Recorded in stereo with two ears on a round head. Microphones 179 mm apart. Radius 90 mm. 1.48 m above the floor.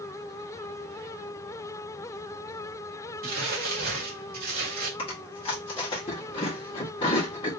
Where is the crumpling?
50° right (ahead or behind), 1.8 m.